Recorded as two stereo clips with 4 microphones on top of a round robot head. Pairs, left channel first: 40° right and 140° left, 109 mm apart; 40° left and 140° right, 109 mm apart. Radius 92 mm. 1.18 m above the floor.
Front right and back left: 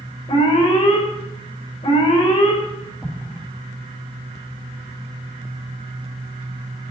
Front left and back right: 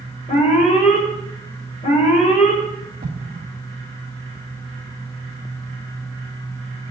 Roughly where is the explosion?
Behind right.